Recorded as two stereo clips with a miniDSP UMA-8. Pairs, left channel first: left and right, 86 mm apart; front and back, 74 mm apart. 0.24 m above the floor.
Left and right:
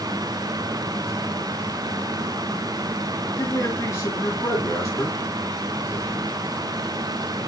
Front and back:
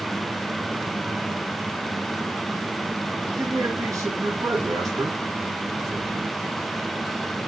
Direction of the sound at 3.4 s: 145° left.